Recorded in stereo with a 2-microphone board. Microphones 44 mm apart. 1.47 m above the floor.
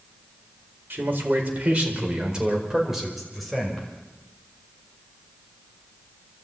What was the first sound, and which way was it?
A man speaking, 50° right (ahead or behind).